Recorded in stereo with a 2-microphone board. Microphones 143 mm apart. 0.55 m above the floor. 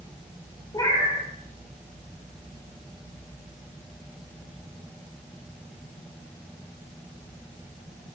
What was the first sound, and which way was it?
A cat meowing, 25° left (ahead or behind).